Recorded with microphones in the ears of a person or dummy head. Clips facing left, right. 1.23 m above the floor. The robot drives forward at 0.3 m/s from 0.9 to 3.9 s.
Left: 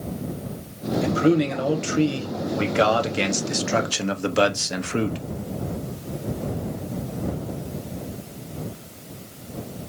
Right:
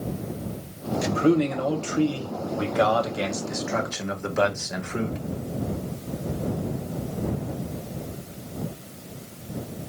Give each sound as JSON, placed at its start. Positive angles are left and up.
{"t": 1.0, "sound": "a man speaking", "side_deg": 25, "distance_m": 1.2}